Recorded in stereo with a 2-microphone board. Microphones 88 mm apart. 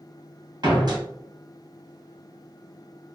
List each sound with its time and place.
0.6 s a door slam: 50° right (ahead or behind), 1.1 m